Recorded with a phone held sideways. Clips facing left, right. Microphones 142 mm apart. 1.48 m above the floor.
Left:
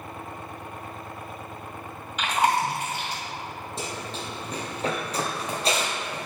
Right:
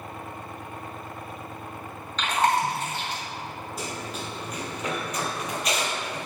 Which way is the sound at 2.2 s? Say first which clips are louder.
Even; 10° left (ahead or behind).